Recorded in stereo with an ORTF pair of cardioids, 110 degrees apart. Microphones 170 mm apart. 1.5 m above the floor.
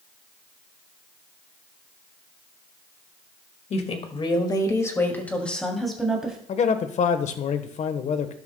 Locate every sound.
3.7 s a woman speaking: 45° left, 2.0 m; by 6.4 s 5° right, 3 m
6.5 s a man speaking: 45° left, 1.2 m